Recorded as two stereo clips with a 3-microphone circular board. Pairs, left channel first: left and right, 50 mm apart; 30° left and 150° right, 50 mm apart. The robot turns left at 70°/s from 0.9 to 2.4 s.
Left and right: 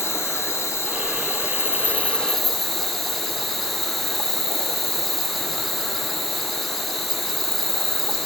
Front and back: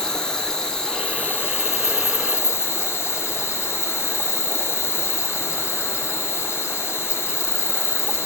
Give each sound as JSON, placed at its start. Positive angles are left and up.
{"t": 0.0, "sound": "an insect", "azimuth_deg": 110, "distance_m": 0.9}